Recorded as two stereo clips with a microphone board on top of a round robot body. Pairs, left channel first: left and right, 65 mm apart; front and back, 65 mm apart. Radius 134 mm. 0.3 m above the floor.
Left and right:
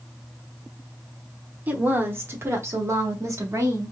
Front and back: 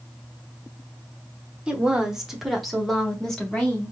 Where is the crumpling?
No crumpling in this recording.